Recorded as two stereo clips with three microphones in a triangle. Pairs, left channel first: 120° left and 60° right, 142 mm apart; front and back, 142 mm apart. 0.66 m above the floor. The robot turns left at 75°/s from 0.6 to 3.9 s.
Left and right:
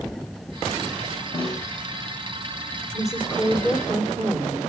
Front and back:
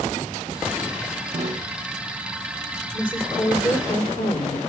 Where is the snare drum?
175° left, 2 m; by 1.7 s 150° left, 2 m.